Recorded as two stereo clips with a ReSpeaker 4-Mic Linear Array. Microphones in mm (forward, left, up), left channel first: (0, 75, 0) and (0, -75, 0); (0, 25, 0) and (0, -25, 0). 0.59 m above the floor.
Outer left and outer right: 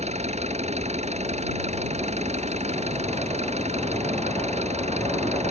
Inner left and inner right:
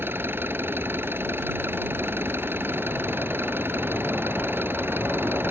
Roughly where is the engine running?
Right.